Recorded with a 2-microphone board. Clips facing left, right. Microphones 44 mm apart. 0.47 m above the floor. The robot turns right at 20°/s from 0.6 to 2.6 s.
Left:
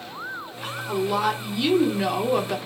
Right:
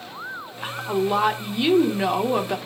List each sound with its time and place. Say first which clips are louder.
0.6 s a woman speaking: right 3 dB; 20° right (ahead or behind), 0.8 m; by 2.6 s 10° right (ahead or behind), 0.8 m